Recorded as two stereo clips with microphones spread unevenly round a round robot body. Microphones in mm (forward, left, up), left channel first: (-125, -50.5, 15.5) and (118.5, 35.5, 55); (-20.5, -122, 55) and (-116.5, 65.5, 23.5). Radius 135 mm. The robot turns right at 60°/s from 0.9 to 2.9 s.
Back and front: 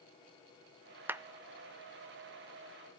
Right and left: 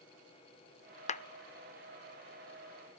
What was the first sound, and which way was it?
A clap, 75° right.